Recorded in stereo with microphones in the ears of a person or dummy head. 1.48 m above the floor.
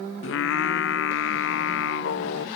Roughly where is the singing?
Left.